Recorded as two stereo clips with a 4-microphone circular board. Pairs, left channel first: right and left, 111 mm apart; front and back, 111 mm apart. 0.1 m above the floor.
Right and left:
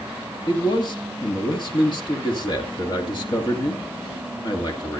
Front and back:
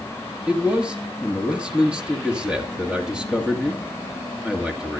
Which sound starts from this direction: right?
A man speaking, at 0.5 s.